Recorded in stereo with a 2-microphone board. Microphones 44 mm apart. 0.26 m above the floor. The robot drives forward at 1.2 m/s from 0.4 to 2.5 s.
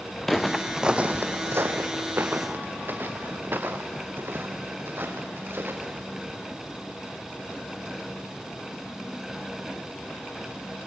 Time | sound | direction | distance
0.2 | footsteps | 5° left (ahead or behind) | 1.7 m